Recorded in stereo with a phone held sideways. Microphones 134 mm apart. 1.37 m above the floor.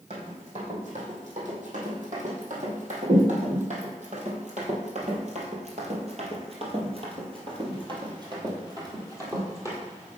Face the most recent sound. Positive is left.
turn(degrees=-20)  # may be behind; listen again after turning